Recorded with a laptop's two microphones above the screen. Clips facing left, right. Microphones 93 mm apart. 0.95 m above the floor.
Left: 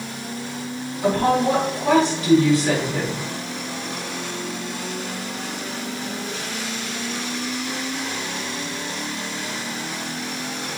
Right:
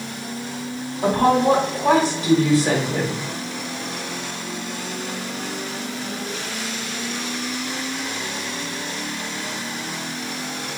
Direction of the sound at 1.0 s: 60° right (ahead or behind).